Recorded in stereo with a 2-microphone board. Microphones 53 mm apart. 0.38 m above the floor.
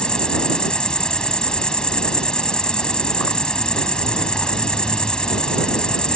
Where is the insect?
15° left (ahead or behind).